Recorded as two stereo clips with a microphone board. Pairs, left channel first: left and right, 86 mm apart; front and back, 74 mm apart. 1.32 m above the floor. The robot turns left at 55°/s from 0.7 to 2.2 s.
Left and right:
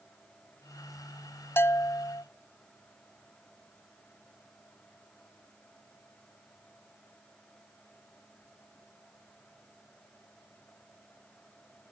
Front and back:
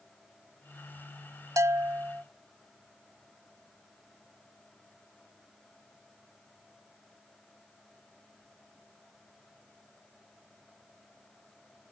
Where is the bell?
145° left; by 2.2 s 110° left.